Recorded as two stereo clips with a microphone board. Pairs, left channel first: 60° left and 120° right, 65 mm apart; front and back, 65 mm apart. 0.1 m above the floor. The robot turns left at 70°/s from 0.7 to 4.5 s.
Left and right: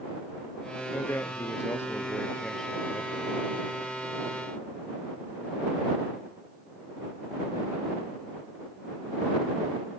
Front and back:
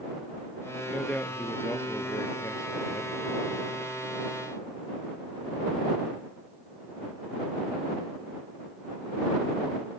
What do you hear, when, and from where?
0.9 s a man speaking: 95° left; by 3.3 s 70° right